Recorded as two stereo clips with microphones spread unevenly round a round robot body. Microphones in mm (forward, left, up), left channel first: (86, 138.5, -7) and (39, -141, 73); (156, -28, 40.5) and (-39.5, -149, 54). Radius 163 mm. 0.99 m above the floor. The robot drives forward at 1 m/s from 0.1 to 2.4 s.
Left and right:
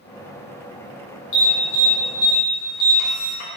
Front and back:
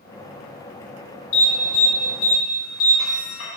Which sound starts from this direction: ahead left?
An alarm, at 1.3 s.